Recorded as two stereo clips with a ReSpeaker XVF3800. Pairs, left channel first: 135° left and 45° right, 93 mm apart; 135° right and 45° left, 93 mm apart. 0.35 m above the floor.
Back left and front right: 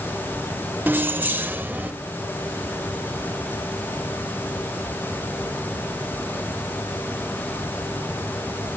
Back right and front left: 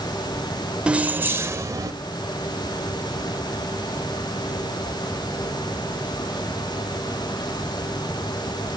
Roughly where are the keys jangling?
Ahead.